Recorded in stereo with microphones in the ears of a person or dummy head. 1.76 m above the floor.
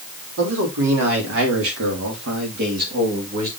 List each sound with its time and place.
0.4 s a man speaking: 75° right (ahead or behind), 3 m; by 3.5 s 40° right (ahead or behind), 2 m